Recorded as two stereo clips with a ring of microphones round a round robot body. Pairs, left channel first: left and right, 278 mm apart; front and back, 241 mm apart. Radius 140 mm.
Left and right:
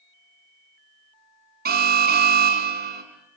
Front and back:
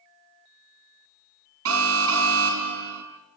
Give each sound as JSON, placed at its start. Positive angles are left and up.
{"t": 1.6, "sound": "an alarm", "azimuth_deg": -145, "distance_m": 4.0}